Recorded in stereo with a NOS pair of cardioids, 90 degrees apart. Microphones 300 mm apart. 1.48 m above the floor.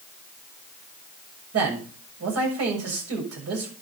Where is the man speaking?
60° right, 7 m.